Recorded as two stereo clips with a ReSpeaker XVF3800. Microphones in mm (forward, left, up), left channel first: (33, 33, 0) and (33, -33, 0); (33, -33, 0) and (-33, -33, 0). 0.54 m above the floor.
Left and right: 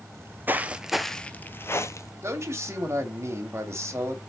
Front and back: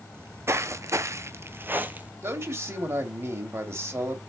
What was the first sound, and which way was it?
Footsteps, 130° right.